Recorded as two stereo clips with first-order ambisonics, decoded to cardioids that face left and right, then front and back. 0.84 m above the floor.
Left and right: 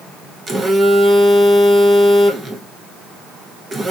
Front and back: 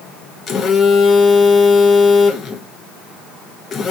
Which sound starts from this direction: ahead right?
A phone buzzing, at 0.5 s.